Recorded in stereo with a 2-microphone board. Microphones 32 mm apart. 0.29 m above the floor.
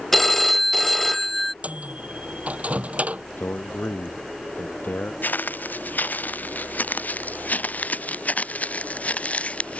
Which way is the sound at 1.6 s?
45° right (ahead or behind).